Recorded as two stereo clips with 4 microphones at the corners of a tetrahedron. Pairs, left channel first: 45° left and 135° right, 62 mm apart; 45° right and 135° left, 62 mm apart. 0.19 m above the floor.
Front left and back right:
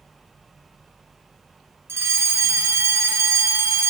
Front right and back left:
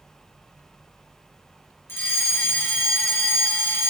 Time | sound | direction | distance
1.9 | a fire alarm | 90° right | 4 m